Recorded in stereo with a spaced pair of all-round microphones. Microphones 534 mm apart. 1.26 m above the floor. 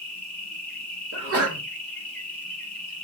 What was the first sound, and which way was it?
An insect, 15° left (ahead or behind).